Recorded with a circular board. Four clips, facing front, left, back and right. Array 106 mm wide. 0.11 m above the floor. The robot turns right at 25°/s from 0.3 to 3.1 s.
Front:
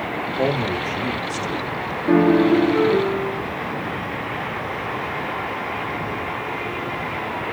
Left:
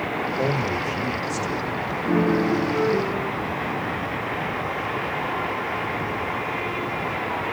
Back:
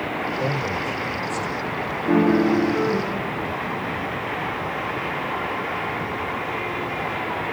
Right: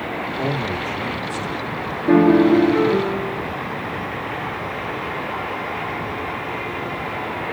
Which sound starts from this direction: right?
A piano, at 2.1 s.